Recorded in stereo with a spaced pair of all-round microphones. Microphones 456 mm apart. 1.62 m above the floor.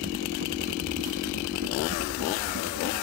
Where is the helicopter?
25° right (ahead or behind); by 3.0 s 45° right (ahead or behind).